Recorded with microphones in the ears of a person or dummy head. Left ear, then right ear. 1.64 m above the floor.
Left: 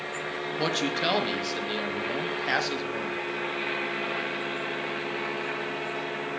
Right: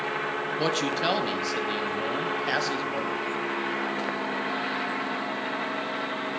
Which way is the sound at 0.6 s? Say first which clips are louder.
Even; 5° left (ahead or behind).